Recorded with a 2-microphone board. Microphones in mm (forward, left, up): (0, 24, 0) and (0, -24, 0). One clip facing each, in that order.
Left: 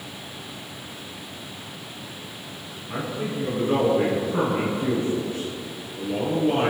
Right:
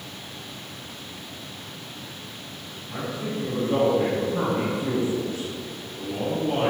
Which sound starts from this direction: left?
A man speaking, at 2.9 s.